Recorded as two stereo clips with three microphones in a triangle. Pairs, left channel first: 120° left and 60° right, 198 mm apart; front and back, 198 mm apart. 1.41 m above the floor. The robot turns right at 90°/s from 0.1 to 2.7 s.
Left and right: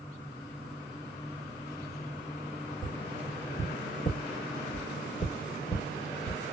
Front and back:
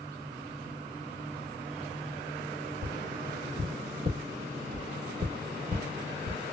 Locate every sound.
2.8 s tapping: 145° left, 1.5 m